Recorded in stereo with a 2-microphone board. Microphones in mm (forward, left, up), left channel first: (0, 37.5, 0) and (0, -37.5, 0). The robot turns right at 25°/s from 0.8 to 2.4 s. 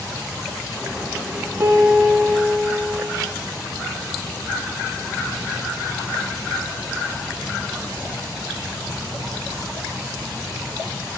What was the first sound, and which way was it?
A piano, 30° right (ahead or behind).